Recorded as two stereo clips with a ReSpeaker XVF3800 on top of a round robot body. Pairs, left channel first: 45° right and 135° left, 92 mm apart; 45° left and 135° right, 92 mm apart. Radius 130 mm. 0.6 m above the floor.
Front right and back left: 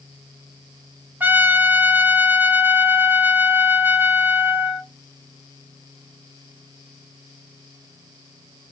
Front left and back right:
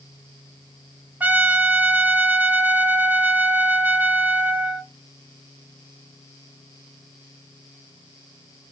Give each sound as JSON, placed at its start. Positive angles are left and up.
{"t": 1.2, "sound": "a trumpet", "azimuth_deg": 175, "distance_m": 1.1}